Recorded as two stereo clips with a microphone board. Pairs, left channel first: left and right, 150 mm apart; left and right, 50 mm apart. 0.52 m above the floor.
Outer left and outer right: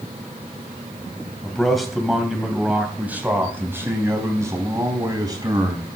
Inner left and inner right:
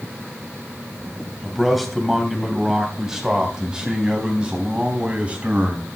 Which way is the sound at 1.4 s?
5° left (ahead or behind).